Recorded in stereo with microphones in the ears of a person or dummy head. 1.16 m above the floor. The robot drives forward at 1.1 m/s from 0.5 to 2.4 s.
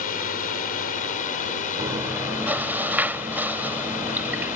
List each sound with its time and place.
0.0 s a drone: 45° left (ahead or behind); by 4.5 s 40° left (ahead or behind)
1.8 s chewing: 10° right (ahead or behind)